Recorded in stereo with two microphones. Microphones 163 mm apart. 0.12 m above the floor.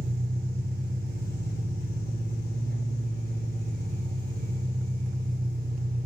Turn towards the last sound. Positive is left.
turn(degrees=-75)  # may be behind; listen again after turning